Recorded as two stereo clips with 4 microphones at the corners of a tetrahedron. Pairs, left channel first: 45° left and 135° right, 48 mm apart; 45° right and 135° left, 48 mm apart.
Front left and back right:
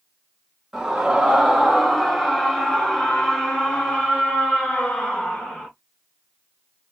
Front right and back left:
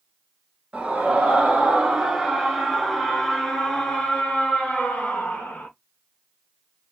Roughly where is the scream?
Behind left.